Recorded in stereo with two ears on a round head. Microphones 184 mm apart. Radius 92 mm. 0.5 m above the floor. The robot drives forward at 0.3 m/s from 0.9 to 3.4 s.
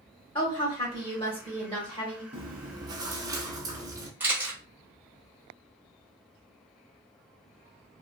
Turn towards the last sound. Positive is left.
turn(degrees=-10)  # may be behind; listen again after turning